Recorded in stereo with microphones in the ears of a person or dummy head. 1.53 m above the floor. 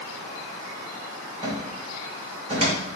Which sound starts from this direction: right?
A cupboard door, at 1.4 s.